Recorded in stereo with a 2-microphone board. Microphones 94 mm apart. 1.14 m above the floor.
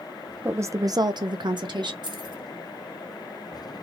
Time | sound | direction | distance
0.5 | a woman speaking | 25° right (ahead or behind) | 0.6 m
2.0 | keys jangling | 50° right (ahead or behind) | 1.1 m